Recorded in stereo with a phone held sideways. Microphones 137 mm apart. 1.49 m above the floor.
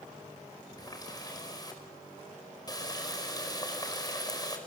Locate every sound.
0.8 s a running tap: 25° left (ahead or behind), 4.5 m